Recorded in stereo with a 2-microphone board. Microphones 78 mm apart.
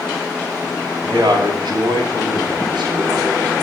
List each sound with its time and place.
1.1 s a man speaking: 70° right (ahead or behind), 2.5 m; by 3.6 s 65° right (ahead or behind), 4.5 m